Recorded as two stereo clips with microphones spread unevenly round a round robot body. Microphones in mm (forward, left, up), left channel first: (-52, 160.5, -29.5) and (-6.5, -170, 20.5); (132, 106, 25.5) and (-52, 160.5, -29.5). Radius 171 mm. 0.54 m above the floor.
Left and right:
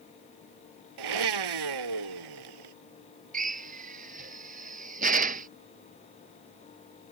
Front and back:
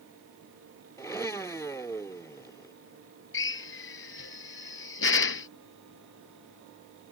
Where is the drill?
15° right.